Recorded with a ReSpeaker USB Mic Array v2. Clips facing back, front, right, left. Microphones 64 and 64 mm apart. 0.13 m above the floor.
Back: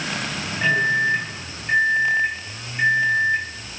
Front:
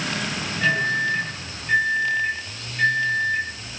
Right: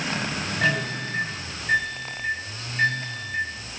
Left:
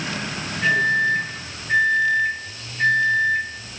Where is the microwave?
110° right, 3 m.